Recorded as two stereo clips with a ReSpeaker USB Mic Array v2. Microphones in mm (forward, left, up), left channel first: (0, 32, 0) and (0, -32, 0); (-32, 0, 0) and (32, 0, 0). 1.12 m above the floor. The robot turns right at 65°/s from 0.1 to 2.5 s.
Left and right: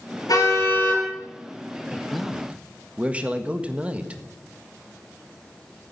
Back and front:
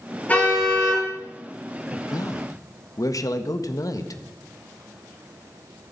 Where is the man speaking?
165° left, 1.4 m; by 4.2 s 160° right, 1.4 m.